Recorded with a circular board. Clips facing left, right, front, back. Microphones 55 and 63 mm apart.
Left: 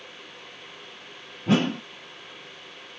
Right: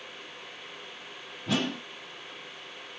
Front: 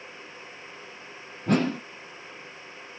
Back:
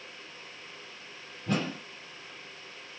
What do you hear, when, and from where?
1.5 s a whoosh: 35° left, 0.7 m